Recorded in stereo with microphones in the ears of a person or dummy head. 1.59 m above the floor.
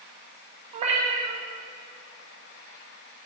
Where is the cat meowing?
30° right (ahead or behind), 1.5 m.